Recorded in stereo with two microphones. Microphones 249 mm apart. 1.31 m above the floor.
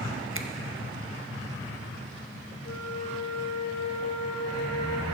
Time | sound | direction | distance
0.3 | a finger snap | 50° right (ahead or behind) | 0.6 m
2.6 | a flute | 75° left (ahead or behind) | 1.3 m